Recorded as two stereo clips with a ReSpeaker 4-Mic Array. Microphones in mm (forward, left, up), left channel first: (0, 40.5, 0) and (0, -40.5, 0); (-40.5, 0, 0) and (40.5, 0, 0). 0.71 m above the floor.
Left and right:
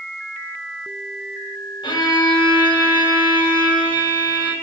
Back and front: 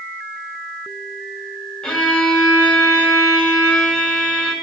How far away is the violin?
About 3 m.